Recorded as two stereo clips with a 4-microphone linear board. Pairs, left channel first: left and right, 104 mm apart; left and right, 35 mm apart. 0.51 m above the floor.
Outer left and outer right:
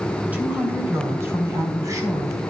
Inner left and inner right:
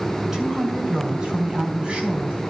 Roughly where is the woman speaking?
Centre.